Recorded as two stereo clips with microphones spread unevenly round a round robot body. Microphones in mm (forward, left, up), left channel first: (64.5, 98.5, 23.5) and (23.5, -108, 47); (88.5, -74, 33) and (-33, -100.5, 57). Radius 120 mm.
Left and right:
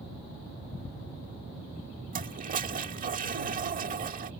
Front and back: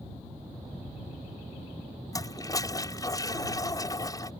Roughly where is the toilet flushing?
Ahead right.